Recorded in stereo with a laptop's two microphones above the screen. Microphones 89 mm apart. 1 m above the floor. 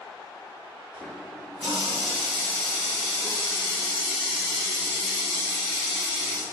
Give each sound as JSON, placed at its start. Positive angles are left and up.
{"t": 0.9, "sound": "a running tap", "side_deg": -10, "distance_m": 1.3}